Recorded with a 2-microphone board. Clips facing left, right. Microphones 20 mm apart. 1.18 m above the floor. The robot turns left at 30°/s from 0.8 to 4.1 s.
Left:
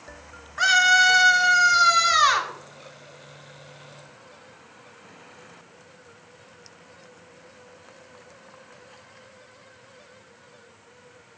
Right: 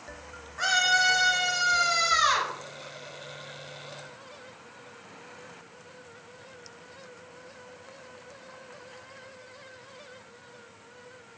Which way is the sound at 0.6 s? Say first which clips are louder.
Left 6 dB; 130° left.